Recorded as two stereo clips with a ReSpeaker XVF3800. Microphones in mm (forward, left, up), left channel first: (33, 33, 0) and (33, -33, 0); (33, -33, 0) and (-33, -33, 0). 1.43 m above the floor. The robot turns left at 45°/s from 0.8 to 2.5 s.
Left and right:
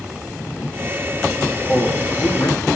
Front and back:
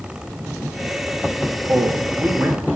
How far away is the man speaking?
About 0.7 m.